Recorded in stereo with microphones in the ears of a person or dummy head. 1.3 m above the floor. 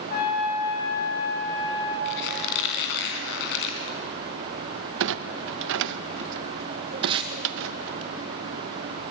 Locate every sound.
0.1 s a trumpet: 45° left (ahead or behind), 9 m
2.0 s a squeak: 60° left (ahead or behind), 2.5 m
5.0 s a clunk: 70° right (ahead or behind), 0.9 m
7.0 s tape being pulled: 35° right (ahead or behind), 3 m